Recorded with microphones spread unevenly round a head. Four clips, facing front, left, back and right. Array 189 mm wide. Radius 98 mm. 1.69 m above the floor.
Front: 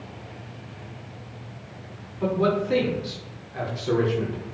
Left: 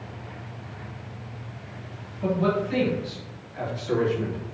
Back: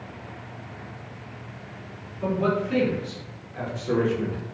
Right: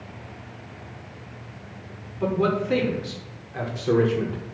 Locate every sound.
2.2 s a man speaking: 60° right, 6 m; by 4.4 s 70° right, 5.5 m